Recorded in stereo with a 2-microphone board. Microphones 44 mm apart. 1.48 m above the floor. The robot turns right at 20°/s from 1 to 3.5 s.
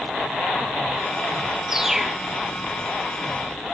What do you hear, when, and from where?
1.7 s a bird: 15° right (ahead or behind); by 2.2 s centre (ahead or behind)